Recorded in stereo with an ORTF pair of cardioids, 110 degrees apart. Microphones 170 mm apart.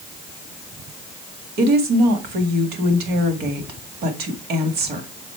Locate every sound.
1.6 s a woman speaking: 65° right, 1.8 m